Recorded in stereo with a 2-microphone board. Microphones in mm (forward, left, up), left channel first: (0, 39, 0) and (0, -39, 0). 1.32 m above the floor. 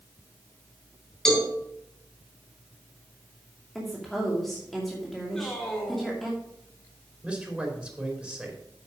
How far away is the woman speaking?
About 2.5 m.